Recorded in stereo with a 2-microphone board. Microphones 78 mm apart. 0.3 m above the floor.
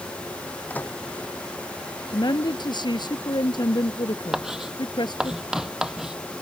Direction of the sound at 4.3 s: 10° right (ahead or behind).